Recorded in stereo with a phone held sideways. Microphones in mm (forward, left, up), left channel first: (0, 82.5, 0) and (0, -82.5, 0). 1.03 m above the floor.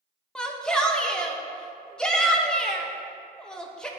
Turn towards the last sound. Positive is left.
turn(degrees=5)  # may be behind; listen again after turning